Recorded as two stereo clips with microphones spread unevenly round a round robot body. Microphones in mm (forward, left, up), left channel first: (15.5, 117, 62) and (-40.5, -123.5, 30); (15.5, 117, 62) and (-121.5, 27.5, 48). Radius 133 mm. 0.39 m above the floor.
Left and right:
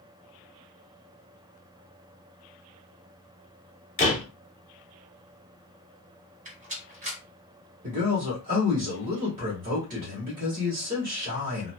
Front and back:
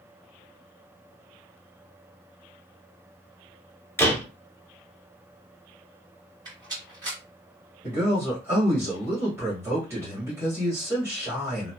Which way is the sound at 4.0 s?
105° left.